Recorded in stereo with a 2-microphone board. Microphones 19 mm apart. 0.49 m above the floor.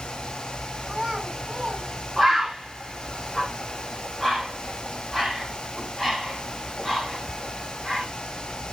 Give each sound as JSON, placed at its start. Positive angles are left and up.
{"t": 0.9, "sound": "a child speaking", "side_deg": -25, "distance_m": 3.5}
{"t": 2.2, "sound": "a bird", "side_deg": 0, "distance_m": 5.5}